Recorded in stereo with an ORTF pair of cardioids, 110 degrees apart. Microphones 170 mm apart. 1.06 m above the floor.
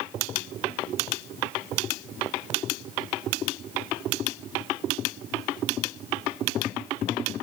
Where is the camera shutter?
No camera shutter in this recording.